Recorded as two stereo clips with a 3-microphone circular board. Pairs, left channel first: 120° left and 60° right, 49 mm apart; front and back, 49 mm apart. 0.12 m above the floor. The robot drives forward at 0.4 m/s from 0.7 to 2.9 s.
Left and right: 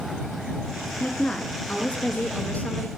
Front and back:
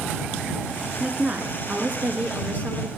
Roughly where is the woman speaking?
Behind left.